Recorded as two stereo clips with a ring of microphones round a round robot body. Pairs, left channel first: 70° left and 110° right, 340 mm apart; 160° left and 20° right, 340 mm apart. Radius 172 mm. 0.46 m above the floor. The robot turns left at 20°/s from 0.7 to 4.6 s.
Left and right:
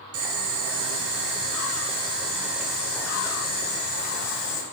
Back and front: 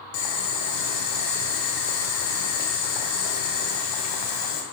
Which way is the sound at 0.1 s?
160° right.